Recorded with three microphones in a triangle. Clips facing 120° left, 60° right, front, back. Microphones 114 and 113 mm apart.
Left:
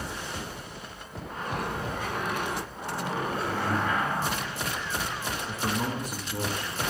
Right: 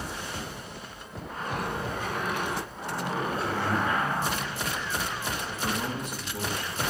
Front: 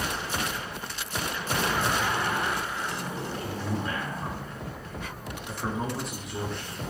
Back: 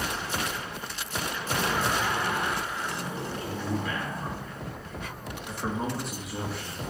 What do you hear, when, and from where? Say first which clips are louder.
3.4 s a man speaking: even, back 1 dB; 5° right, 2.0 m; by 6.8 s 100° left, 2.5 m